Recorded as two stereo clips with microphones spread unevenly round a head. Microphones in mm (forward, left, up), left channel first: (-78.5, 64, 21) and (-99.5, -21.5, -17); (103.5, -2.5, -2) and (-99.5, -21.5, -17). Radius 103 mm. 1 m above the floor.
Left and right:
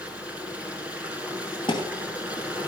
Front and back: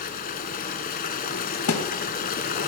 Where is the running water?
5° right, 1.3 m.